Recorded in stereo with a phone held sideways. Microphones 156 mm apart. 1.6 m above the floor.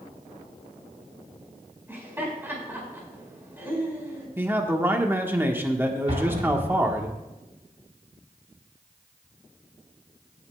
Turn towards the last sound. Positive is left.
turn(degrees=-45)  # may be behind; listen again after turning